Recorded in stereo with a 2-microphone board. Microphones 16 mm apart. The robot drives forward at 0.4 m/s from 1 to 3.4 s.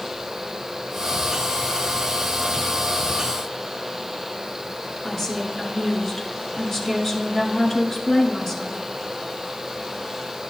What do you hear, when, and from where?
5.0 s a woman speaking: 25° left (ahead or behind), 2 m